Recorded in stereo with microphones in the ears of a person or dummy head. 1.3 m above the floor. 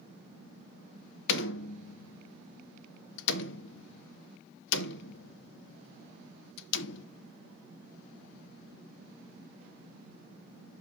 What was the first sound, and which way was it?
A door slam, 65° left (ahead or behind).